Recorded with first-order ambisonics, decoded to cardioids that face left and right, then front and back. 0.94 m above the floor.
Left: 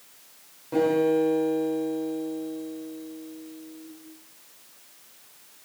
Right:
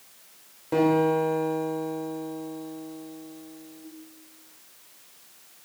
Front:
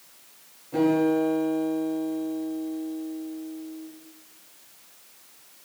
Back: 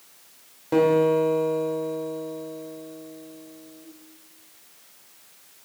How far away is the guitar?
About 2.5 m.